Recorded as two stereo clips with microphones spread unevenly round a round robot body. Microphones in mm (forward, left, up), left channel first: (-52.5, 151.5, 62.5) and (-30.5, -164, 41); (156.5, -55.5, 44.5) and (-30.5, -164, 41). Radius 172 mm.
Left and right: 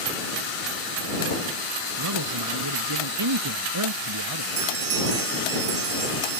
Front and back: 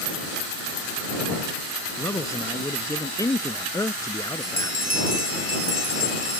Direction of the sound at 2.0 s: 45° right.